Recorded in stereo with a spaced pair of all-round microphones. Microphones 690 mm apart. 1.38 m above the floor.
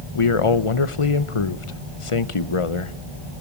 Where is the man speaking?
50° left (ahead or behind), 1.0 m.